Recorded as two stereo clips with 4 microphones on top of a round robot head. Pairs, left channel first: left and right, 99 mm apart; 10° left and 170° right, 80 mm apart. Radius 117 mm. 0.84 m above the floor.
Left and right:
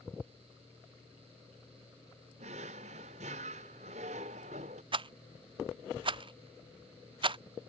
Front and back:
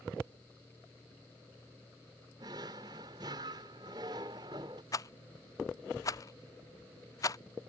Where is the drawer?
115° right.